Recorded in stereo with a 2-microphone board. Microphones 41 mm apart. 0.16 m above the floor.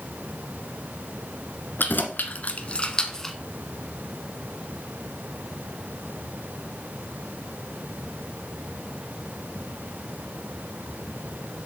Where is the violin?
I don't hear a violin.